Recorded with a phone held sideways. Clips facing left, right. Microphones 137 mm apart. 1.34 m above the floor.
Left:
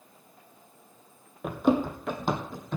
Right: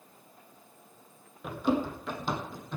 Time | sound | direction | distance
1.4 | running footsteps | 50° left (ahead or behind) | 2 m